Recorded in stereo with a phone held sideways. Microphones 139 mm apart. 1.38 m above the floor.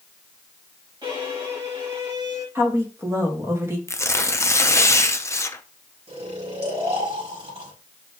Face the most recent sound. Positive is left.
turn(degrees=-45)  # may be behind; listen again after turning